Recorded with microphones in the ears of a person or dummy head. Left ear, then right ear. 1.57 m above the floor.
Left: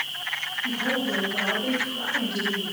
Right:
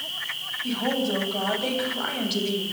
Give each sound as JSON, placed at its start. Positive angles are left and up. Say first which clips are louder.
{"t": 0.6, "sound": "a woman speaking", "louder": "right 1 dB", "side_deg": -40, "distance_m": 9.0}